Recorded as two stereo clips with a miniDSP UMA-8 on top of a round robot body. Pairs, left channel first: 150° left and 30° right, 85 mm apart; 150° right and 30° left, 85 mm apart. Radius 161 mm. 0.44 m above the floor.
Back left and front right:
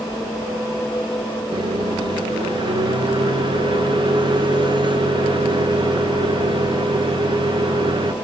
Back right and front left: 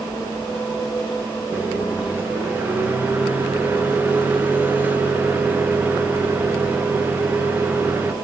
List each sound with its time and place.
1.5 s a microwave: 40° right, 1.5 m